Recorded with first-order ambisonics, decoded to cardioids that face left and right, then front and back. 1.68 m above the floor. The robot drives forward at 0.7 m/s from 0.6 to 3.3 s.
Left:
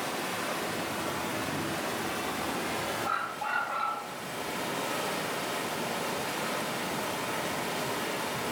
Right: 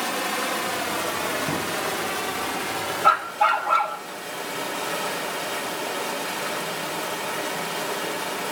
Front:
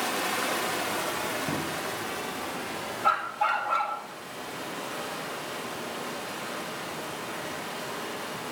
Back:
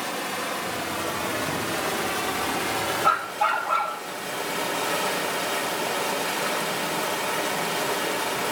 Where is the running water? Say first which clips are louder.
Right 7 dB, even; 60° right, 1.4 m; by 8.5 s 155° right, 2 m.